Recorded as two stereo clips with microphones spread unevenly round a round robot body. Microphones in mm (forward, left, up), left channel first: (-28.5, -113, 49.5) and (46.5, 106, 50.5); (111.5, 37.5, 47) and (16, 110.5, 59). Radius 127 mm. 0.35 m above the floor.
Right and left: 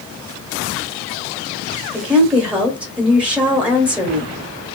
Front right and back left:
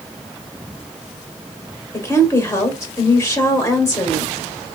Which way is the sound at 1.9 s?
10° right.